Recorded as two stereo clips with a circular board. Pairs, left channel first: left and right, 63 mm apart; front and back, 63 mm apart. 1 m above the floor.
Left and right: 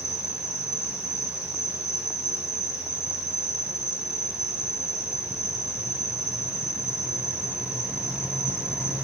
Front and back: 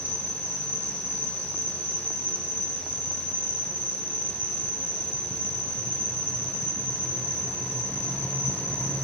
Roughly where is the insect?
Ahead left.